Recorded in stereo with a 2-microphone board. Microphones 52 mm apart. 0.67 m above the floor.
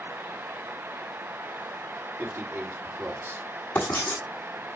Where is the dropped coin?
No dropped coin in this recording.